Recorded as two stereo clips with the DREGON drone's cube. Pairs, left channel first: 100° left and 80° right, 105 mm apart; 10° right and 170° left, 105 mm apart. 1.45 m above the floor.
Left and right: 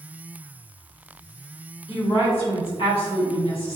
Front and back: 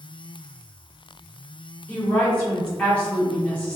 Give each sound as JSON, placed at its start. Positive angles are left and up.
{"t": 1.9, "sound": "a woman speaking", "azimuth_deg": 65, "distance_m": 1.4}